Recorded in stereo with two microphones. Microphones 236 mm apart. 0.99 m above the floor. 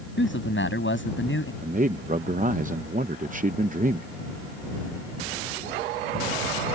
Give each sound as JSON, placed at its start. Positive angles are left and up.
{"t": 0.2, "sound": "a man speaking", "side_deg": 55}
{"t": 1.6, "sound": "a man speaking", "side_deg": -35}